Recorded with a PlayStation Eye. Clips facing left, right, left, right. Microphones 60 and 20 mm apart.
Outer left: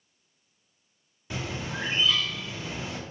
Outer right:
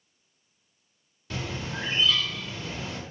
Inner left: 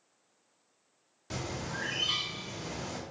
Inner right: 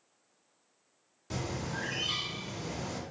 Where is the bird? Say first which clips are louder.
Even, inner right 1 dB; 10° left (ahead or behind), 1.0 m.